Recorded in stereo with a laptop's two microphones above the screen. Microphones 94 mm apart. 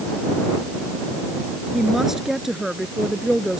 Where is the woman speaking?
5° right (ahead or behind).